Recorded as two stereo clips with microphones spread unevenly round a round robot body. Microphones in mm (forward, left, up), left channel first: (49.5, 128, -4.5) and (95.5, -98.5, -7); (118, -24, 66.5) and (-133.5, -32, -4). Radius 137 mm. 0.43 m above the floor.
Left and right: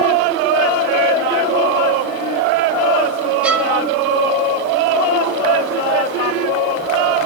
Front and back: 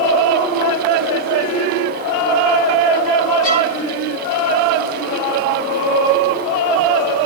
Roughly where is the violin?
Ahead.